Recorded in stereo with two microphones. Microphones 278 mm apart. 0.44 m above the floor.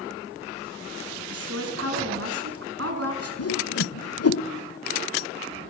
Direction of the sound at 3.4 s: 60° left (ahead or behind).